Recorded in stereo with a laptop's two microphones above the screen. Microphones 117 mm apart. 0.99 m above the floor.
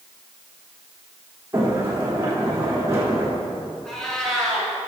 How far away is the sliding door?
About 3 m.